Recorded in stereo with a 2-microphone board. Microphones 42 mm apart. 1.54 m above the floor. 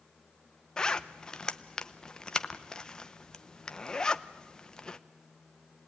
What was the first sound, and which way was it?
A zipper, 20° left (ahead or behind).